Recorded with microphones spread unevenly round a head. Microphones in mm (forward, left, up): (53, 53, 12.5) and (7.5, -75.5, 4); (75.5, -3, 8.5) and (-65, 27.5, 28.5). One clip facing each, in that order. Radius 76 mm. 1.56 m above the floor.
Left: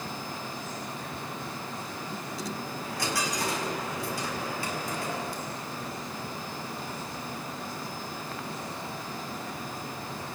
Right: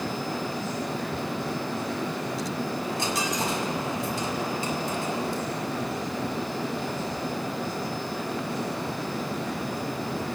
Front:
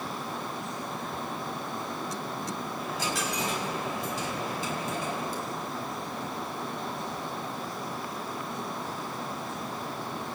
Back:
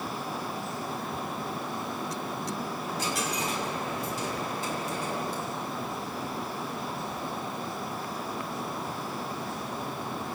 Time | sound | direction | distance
2.8 | a dropped coin | 40° right | 5.5 m